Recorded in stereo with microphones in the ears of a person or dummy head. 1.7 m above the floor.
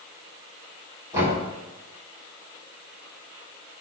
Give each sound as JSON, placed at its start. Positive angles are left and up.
{"t": 1.1, "sound": "knocking", "side_deg": -15, "distance_m": 4.0}